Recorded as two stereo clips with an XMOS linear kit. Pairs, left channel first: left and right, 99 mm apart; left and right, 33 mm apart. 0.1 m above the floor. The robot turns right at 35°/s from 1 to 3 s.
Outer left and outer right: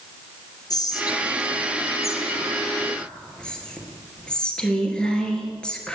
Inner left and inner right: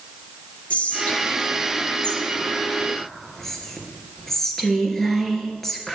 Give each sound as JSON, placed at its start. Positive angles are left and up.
{"t": 0.7, "sound": "whispering", "azimuth_deg": 95, "distance_m": 2.0}